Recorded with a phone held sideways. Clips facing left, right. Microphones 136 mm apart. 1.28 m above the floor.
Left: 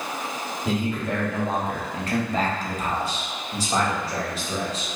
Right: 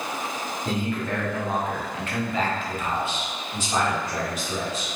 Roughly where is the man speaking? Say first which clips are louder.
Left 2 dB; centre.